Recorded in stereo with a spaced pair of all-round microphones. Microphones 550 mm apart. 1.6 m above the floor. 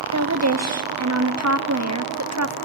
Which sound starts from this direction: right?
A woman speaking, at 0.1 s.